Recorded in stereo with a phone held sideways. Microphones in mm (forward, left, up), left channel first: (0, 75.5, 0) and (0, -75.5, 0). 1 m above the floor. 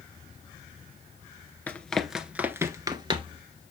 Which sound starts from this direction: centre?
Running footsteps, at 1.7 s.